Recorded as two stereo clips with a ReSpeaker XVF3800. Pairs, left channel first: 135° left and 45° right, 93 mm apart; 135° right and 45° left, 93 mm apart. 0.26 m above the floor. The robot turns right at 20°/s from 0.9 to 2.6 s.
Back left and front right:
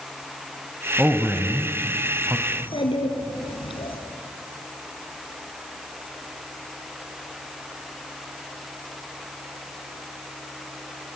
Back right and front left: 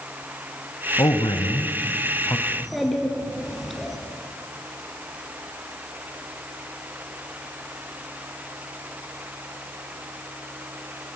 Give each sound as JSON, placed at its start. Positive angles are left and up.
{"t": 1.0, "sound": "a man speaking", "azimuth_deg": -115, "distance_m": 1.2}
{"t": 2.5, "sound": "a child speaking", "azimuth_deg": 130, "distance_m": 3.0}